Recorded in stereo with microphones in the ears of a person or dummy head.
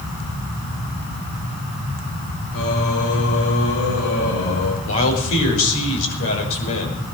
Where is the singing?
80° left, 4.5 m.